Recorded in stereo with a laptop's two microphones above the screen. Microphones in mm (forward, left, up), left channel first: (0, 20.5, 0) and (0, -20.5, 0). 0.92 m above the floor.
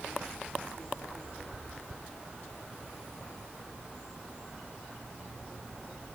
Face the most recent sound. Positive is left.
No sound to turn to.